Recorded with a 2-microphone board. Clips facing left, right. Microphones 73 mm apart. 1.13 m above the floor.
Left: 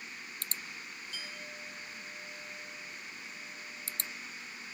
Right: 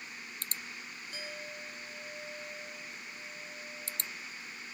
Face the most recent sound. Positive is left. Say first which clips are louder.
# right 4 dB
turn(degrees=-40)  # may be behind; listen again after turning